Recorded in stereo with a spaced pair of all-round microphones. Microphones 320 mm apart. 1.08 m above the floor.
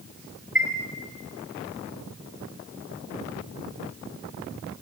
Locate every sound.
0.6 s a chime: 35° right (ahead or behind), 4.5 m